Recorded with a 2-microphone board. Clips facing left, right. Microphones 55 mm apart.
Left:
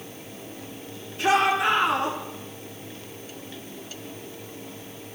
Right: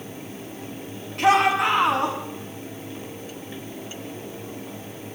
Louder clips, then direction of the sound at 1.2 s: Right 3 dB; 75° right (ahead or behind).